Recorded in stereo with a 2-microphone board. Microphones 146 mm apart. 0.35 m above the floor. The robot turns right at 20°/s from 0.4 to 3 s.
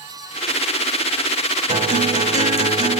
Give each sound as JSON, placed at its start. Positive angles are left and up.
{"t": 1.7, "sound": "a guitar", "side_deg": -55, "distance_m": 2.5}